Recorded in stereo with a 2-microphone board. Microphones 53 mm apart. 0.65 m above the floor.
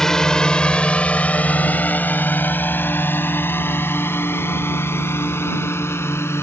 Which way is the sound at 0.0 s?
10° left (ahead or behind).